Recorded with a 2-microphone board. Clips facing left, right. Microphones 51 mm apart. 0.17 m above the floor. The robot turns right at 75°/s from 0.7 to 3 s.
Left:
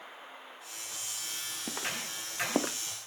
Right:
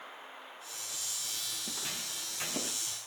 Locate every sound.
1.6 s footsteps: 40° left (ahead or behind), 1.7 m; by 2.8 s 85° left, 0.8 m